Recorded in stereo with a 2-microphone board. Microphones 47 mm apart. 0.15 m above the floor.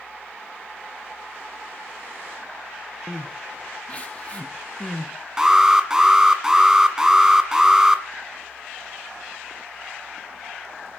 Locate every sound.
3.1 s crying: 30° left (ahead or behind), 2 m
5.4 s an alarm: 10° right (ahead or behind), 1.5 m